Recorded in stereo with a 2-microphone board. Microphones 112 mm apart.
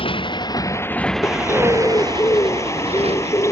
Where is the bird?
25° left (ahead or behind).